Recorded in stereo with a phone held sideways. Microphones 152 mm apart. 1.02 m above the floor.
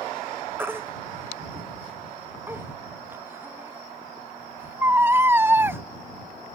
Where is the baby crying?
15° right (ahead or behind).